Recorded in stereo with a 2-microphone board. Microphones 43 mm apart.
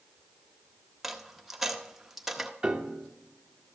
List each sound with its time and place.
1.0 s a dropped coin: 5° right (ahead or behind), 0.6 m
2.6 s a piano: 15° right (ahead or behind), 0.6 m